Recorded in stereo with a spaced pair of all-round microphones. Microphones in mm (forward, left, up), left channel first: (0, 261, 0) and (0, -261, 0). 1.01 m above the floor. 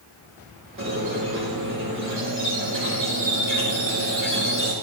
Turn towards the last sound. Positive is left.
turn(degrees=-25)  # may be behind; listen again after turning